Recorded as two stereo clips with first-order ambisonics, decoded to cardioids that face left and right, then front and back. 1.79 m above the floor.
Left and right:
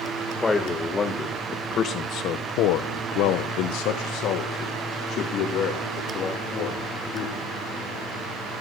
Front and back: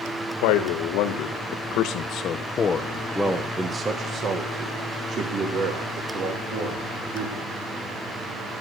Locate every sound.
0.4 s a man speaking: 10° left, 2.0 m; by 7.5 s 145° left, 3.5 m